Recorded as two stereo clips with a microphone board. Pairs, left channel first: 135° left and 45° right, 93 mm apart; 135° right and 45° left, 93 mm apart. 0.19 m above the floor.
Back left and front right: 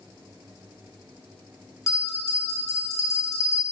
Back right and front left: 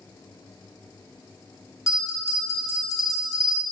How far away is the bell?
About 0.5 m.